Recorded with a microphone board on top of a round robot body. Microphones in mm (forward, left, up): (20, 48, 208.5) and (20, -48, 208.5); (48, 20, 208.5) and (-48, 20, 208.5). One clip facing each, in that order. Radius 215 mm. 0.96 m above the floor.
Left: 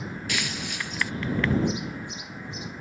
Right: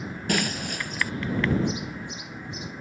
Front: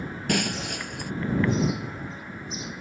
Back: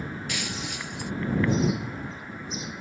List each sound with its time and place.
0.3 s breaking glass: 40° right